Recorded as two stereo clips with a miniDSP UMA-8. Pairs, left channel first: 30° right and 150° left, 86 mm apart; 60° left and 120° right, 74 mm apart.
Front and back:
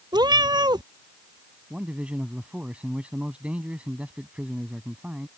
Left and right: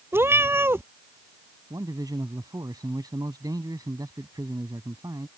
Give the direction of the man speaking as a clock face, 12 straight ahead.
5 o'clock.